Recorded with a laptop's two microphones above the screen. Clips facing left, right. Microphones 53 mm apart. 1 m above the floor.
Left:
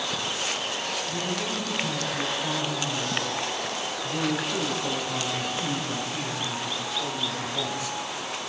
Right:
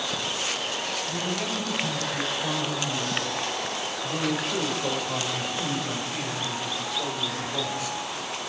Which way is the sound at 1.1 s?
70° right (ahead or behind).